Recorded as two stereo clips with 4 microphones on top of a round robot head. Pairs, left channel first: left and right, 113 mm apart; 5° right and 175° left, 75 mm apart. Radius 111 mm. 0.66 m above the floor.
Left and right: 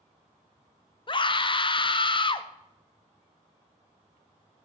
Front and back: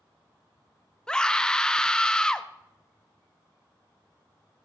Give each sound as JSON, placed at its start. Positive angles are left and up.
{"t": 1.1, "sound": "a scream", "azimuth_deg": 75, "distance_m": 0.8}